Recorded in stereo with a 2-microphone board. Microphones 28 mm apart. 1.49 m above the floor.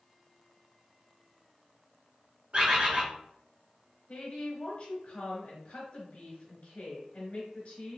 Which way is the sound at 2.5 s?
55° right (ahead or behind).